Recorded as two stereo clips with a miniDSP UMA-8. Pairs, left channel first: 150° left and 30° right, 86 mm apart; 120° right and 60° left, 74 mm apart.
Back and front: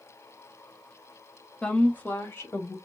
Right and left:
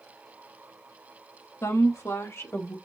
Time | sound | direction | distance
1.6 | a woman speaking | 135° right | 1.2 m